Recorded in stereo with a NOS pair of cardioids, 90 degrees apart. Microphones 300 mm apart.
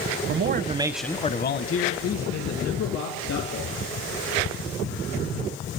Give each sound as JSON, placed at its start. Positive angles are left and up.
{"t": 0.3, "sound": "a man speaking", "azimuth_deg": -45, "distance_m": 0.9}